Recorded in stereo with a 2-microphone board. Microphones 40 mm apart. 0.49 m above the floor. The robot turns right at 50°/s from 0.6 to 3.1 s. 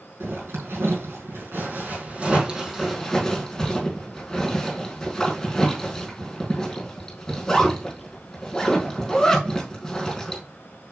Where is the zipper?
70° right (ahead or behind), 4 m; by 10.4 s 15° left (ahead or behind), 4 m.